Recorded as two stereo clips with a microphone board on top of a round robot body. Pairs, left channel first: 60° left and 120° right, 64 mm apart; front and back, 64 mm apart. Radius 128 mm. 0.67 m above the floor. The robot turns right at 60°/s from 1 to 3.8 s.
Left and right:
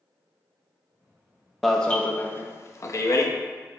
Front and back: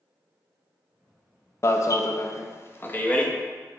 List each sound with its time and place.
1.6 s an alarm: 30° right, 0.8 m; by 3.3 s 70° left, 0.8 m